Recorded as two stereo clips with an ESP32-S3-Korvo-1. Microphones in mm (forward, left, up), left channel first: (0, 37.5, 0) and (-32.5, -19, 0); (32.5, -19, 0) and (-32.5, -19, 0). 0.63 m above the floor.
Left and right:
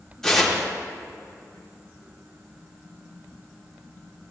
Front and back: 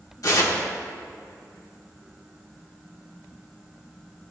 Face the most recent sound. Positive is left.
turn(degrees=-20)